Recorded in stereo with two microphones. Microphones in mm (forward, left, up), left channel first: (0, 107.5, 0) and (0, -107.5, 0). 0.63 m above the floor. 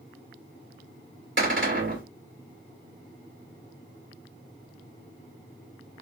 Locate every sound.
1.4 s a cupboard door: 60° right (ahead or behind), 2 m